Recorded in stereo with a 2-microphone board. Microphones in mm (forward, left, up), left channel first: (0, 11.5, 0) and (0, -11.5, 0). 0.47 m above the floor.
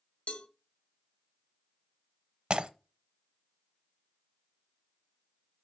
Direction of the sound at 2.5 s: 45° right (ahead or behind).